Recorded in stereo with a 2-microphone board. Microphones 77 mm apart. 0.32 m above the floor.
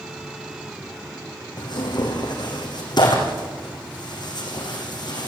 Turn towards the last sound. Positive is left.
turn(degrees=60)  # may be behind; listen again after turning